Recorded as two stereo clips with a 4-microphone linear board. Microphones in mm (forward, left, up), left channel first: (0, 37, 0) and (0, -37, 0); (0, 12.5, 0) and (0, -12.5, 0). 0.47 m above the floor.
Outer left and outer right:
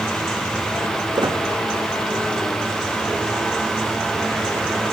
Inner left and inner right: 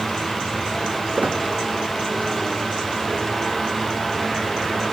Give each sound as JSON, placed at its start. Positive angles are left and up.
{"t": 1.1, "sound": "a squeak", "side_deg": -70, "distance_m": 4.5}